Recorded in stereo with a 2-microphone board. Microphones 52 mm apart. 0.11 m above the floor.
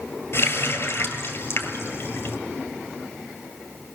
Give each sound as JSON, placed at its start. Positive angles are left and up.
{"t": 0.3, "sound": "a running tap", "side_deg": 55, "distance_m": 1.8}